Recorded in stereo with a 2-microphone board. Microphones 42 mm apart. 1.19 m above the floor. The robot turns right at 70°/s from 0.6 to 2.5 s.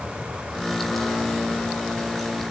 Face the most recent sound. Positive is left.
No sound to turn to.